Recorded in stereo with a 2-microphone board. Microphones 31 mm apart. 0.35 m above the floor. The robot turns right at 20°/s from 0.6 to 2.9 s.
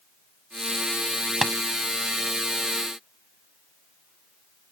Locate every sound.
1.4 s tapping: 5° right (ahead or behind)